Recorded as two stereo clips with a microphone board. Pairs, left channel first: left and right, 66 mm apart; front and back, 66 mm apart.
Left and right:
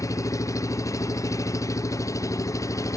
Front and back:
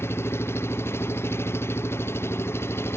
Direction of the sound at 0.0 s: 50° left.